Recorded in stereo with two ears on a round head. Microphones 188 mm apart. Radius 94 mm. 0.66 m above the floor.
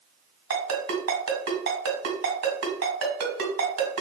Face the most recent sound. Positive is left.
turn(degrees=-60)  # may be behind; listen again after turning